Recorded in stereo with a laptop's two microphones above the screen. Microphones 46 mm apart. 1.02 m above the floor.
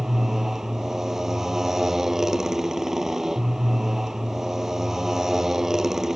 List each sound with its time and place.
0.0 s a motorcycle: 10° right (ahead or behind)